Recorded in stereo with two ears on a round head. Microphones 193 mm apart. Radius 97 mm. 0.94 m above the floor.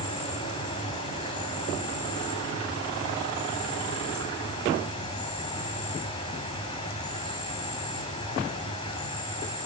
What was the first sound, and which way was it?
An insect, 20° left (ahead or behind).